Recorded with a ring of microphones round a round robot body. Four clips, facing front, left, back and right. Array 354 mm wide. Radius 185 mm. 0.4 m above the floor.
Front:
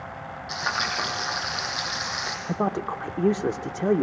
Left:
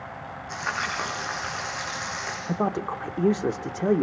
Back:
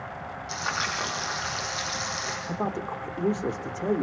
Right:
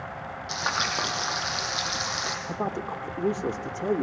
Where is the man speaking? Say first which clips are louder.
Left 6 dB, front 5 dB; 45° left, 1.3 m.